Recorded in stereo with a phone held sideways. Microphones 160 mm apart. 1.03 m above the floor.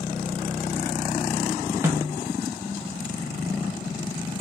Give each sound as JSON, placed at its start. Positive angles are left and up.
{"t": 1.8, "sound": "a snare drum", "side_deg": -15, "distance_m": 2.0}